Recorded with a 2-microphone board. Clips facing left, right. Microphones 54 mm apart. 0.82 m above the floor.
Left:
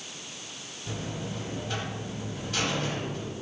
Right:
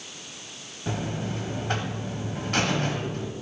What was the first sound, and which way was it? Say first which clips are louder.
A buzzer: right 5 dB; 50° right (ahead or behind).